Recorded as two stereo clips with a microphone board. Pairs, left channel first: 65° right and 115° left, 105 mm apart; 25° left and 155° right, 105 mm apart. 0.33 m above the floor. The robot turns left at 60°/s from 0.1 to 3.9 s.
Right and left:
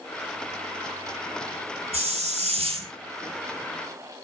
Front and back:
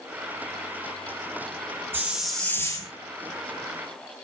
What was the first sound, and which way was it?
A hiss, 130° left.